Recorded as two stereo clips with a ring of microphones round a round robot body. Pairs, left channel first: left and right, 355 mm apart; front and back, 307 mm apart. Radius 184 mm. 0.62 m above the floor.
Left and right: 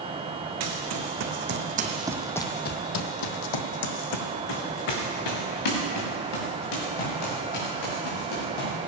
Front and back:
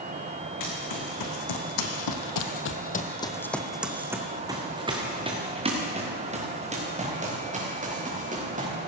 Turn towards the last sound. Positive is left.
turn(degrees=115)